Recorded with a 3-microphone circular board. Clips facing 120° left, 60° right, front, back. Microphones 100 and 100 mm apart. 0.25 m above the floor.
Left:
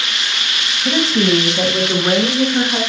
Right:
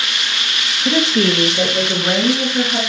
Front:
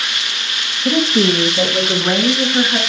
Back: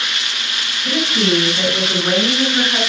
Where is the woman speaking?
35° left, 1.4 m; by 2.8 s 85° left, 3 m.